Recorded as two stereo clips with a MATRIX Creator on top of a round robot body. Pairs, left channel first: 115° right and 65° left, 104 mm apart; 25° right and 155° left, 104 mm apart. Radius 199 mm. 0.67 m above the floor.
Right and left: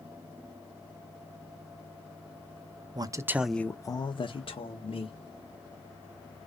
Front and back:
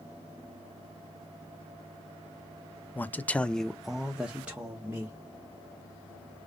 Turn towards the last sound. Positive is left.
turn(degrees=-125)